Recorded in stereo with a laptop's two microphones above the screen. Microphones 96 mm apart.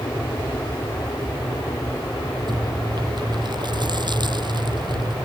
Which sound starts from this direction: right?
Chewing, at 2.5 s.